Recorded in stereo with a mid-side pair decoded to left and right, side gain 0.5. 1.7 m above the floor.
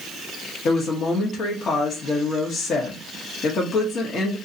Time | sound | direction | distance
0.7 | a woman speaking | 50° left | 1.4 m